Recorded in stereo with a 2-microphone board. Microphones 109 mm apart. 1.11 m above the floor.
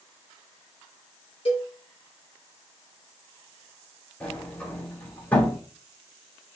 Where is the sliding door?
15° left (ahead or behind), 3.5 m.